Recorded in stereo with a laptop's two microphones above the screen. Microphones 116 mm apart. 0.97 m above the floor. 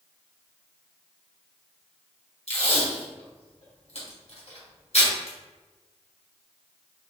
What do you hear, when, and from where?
2.5 s tape being pulled: 70° left (ahead or behind), 1.8 m